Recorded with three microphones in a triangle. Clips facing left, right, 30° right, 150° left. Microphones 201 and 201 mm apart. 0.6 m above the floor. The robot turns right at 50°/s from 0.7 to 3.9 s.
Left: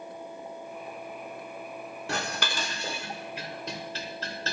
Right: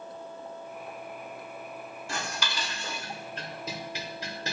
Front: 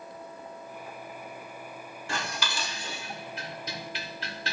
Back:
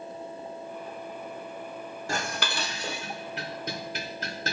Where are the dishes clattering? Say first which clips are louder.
Left 3 dB, back 2 dB; 105° left, 1.6 m; by 4.5 s 165° right, 1.6 m.